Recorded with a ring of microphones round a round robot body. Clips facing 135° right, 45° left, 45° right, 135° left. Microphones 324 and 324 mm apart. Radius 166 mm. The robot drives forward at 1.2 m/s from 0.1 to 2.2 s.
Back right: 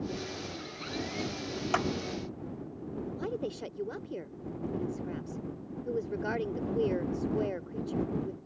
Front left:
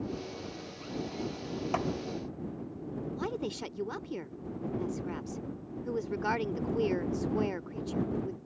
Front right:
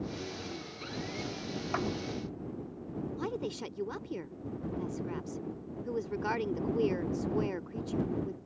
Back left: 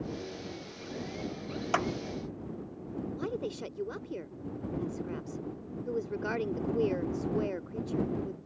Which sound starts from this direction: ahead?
A woman speaking, at 3.2 s.